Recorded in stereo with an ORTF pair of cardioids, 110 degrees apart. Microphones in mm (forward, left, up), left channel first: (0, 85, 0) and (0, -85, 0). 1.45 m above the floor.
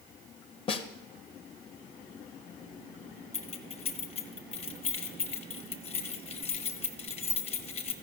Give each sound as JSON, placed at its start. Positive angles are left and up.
{"t": 0.7, "sound": "a snare drum", "azimuth_deg": 30, "distance_m": 0.7}
{"t": 3.3, "sound": "keys jangling", "azimuth_deg": 40, "distance_m": 0.9}